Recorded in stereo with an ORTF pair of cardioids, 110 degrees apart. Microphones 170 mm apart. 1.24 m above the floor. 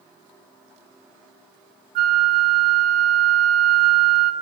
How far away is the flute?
About 0.7 m.